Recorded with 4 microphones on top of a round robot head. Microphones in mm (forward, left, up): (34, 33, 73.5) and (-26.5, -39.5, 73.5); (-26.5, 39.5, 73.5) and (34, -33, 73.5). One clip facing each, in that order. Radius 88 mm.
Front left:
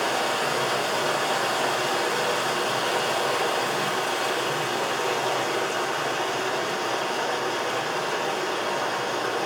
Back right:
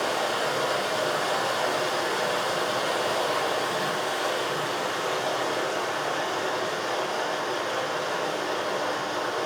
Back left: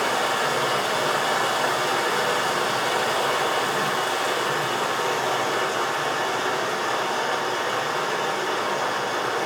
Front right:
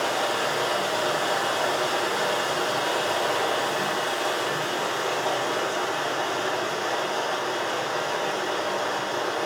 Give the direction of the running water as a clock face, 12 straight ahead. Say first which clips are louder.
Front left 1 dB, back left 2 dB; 9 o'clock.